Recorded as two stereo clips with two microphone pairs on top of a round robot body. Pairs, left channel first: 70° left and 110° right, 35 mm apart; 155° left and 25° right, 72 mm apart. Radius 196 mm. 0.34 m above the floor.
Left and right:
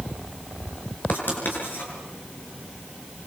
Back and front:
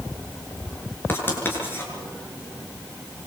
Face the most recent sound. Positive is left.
turn(degrees=95)